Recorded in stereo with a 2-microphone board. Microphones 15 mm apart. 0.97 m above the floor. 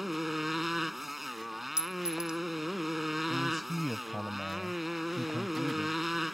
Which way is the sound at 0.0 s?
10° right (ahead or behind).